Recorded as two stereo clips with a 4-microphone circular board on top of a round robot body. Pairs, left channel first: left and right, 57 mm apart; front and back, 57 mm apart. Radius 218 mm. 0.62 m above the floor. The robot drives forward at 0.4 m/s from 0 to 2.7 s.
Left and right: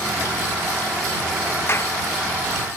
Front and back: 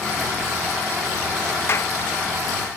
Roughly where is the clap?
Ahead left.